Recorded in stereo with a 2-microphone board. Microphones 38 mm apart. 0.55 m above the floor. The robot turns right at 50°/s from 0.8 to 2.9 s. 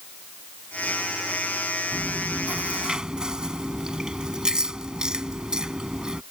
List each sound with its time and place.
1.9 s chewing: 70° right; by 6.2 s 20° right